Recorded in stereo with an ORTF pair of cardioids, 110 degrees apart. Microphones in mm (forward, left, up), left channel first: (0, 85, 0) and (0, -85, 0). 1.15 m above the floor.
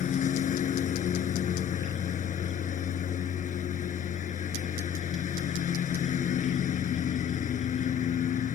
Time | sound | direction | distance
0.0 | a lawn mower | 50° left | ?